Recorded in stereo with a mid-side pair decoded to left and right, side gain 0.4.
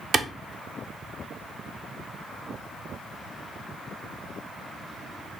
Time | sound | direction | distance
0.1 | a clap | 50° right | 0.6 m